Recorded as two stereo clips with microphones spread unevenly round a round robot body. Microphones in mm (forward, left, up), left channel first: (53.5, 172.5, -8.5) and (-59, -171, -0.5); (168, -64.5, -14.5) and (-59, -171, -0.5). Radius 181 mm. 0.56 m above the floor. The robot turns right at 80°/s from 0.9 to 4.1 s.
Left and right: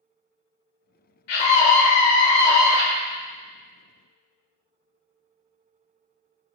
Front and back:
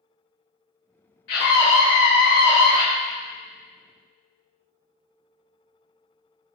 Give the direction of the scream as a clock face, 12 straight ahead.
10 o'clock.